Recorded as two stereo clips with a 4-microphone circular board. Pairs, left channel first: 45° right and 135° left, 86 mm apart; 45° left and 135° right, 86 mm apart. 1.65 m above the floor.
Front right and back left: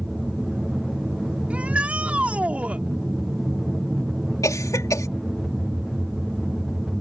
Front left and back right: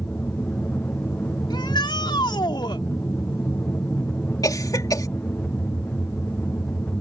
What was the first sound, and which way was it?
An aircraft, 55° left.